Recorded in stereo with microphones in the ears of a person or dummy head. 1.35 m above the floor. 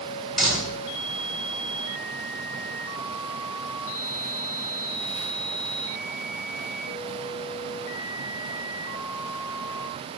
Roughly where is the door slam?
Centre.